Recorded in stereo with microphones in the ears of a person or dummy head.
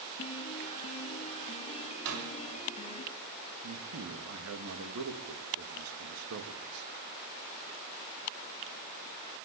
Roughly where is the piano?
Left.